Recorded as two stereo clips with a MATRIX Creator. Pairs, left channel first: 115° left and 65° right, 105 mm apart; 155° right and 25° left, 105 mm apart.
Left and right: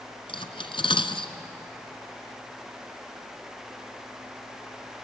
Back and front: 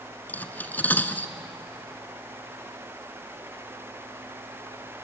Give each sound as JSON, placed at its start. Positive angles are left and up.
{"t": 0.3, "sound": "cutlery clinking", "azimuth_deg": 135, "distance_m": 1.1}